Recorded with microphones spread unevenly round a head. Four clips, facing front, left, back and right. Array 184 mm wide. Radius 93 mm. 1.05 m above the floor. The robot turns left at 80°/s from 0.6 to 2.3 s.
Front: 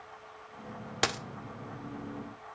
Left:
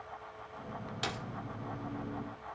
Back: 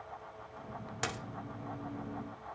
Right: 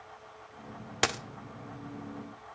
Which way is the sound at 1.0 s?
50° right.